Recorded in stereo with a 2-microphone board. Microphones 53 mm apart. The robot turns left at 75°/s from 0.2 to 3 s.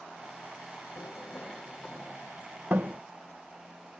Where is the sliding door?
50° left (ahead or behind); by 3.0 s 55° right (ahead or behind).